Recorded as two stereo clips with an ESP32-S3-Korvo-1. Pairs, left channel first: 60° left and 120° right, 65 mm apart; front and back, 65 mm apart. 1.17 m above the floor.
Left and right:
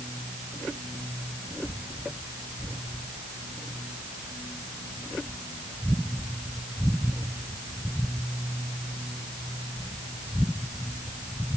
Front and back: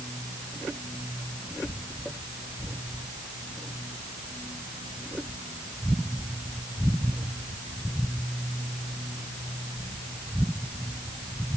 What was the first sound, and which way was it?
Only background noise.